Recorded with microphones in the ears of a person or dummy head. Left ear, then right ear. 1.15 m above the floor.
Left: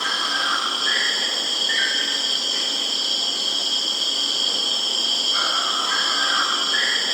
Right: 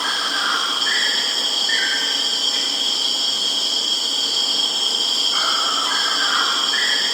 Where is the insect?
30° right (ahead or behind), 0.9 m.